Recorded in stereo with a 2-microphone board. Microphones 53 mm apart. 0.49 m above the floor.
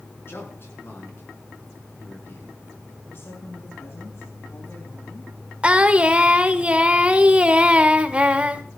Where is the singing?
20° right (ahead or behind), 1.3 m.